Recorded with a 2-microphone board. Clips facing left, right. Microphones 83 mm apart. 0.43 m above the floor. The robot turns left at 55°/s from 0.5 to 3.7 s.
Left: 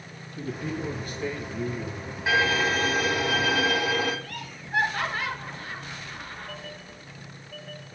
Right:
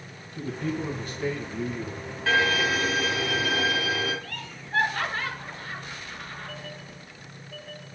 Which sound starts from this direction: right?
A man speaking, at 0.3 s.